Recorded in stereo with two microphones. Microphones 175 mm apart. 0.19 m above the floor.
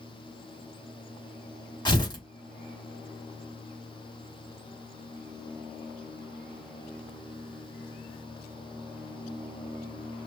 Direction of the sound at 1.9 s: 25° left (ahead or behind).